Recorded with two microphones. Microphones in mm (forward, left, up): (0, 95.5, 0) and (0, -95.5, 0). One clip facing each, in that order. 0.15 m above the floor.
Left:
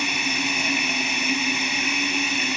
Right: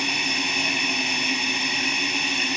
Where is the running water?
5° left (ahead or behind), 1.0 m.